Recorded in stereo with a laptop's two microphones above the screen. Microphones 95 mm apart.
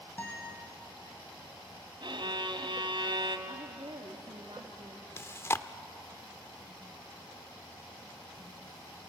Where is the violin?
60° right (ahead or behind), 1.3 m.